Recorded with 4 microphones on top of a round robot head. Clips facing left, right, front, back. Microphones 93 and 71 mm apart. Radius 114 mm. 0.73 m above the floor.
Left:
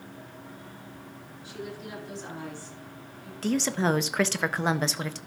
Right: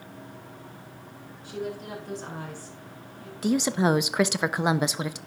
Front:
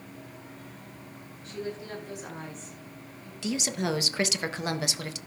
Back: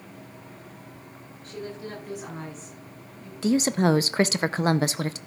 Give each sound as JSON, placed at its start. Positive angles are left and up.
{"t": 1.4, "sound": "a woman speaking", "azimuth_deg": -130, "distance_m": 7.5}
{"t": 3.4, "sound": "a woman speaking", "azimuth_deg": -160, "distance_m": 0.7}